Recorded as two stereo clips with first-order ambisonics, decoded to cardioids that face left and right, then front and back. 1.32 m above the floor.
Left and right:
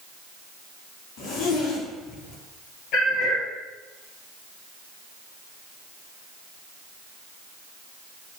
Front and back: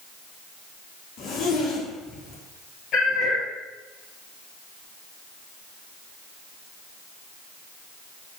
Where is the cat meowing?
50° left, 4 m.